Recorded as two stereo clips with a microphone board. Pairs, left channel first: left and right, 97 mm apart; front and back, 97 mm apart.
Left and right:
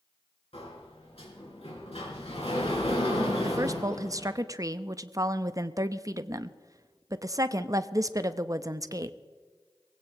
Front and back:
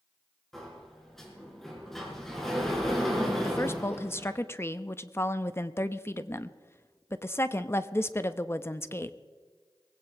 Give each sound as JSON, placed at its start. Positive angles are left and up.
{"t": 0.5, "sound": "a sliding door", "azimuth_deg": 85, "distance_m": 4.0}
{"t": 3.4, "sound": "a woman speaking", "azimuth_deg": -50, "distance_m": 0.6}